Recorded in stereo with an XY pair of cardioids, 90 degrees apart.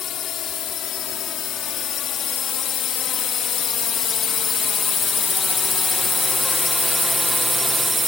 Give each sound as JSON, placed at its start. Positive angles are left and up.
{"t": 0.0, "sound": "a drone", "azimuth_deg": 70}